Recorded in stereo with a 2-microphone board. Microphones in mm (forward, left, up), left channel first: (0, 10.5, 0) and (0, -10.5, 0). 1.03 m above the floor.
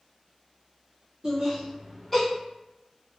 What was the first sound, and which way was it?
Laughter, 70° right (ahead or behind).